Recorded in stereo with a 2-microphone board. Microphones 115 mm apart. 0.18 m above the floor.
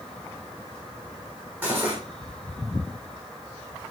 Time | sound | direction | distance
1.6 | cutlery clinking | 15° right (ahead or behind) | 4 m